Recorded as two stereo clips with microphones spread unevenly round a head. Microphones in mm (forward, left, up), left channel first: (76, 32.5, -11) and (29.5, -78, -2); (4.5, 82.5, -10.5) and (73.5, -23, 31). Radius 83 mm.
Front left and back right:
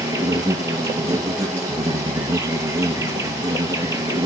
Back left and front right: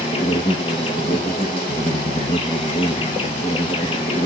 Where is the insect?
170° right, 1.5 m.